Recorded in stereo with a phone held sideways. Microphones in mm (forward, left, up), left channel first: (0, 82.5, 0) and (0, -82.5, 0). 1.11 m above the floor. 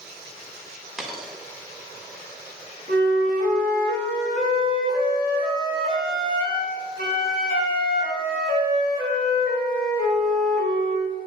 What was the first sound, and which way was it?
A dropped coin, centre (ahead or behind).